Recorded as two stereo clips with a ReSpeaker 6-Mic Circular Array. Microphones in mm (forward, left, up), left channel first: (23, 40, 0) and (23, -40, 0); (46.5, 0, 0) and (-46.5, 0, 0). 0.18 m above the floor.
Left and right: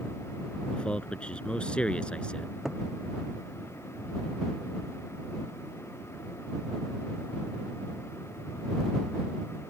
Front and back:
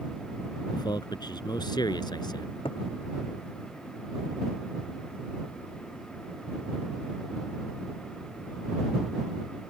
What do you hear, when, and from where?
0.7 s a man speaking: 15° left
2.6 s a cupboard door: 5° right